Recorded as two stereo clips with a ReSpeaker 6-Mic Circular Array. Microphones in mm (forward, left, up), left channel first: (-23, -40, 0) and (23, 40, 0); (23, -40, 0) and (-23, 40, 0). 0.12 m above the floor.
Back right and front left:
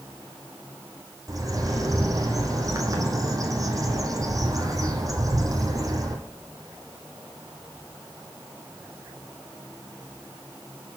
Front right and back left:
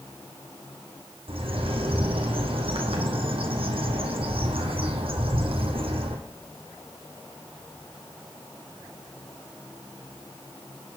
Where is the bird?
110° left, 0.8 m.